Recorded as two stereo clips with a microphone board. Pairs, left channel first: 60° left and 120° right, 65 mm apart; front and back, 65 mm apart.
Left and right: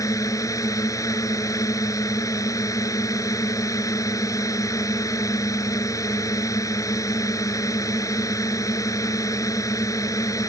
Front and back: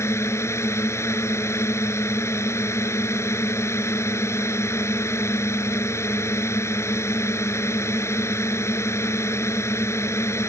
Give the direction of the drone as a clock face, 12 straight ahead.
11 o'clock.